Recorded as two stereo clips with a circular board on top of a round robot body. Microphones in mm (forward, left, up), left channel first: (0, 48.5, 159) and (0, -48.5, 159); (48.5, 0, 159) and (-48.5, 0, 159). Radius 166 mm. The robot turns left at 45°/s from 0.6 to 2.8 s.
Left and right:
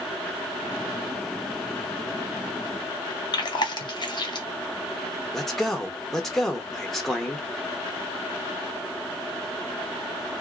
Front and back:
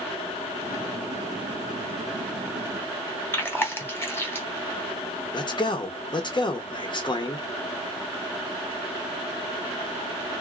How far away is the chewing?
About 1.1 m.